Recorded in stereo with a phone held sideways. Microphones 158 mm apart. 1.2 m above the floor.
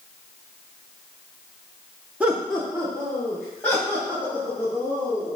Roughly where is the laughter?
Centre.